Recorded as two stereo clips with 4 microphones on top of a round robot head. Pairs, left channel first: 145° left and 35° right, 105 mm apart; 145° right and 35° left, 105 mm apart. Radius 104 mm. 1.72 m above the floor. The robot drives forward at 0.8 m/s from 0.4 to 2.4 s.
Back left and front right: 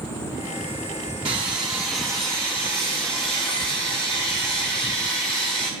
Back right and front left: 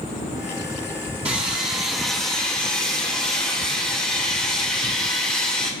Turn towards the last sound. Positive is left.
turn(degrees=180)